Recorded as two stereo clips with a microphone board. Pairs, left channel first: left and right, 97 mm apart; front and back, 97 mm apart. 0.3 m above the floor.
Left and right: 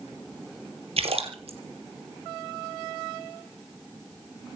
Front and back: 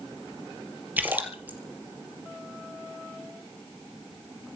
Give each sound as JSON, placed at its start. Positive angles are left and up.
{"t": 1.0, "sound": "a splash", "azimuth_deg": -105, "distance_m": 3.5}